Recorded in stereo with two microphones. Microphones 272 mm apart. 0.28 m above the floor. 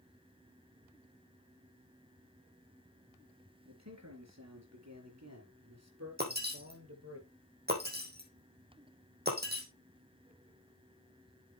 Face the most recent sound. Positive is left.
turn(degrees=-35)  # may be behind; listen again after turning